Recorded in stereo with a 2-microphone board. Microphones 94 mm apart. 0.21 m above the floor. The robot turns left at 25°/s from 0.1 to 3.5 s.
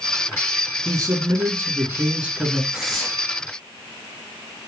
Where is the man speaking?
130° right, 2.5 m; by 2.6 s 170° right, 2.5 m.